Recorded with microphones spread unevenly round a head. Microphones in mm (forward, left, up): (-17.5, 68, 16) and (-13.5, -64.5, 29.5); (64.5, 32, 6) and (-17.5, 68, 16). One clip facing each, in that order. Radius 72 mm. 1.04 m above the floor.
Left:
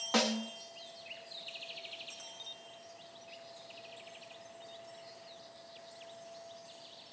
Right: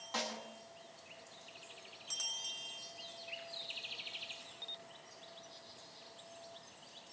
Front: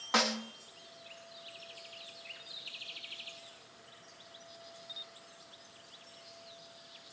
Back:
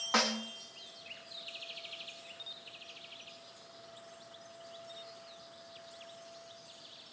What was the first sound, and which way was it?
A snare drum, 65° left.